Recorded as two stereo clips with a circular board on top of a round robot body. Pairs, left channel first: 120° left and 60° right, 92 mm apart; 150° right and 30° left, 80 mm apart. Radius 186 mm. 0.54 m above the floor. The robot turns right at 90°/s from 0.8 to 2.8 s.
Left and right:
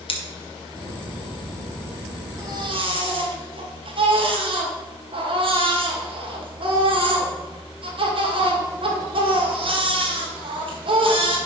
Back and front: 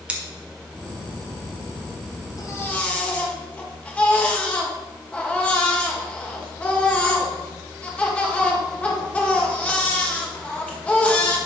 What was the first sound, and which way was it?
Scissors, 105° left.